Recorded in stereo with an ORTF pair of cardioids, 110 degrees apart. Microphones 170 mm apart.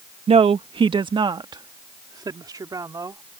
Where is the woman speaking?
35° right; by 3.3 s 20° right.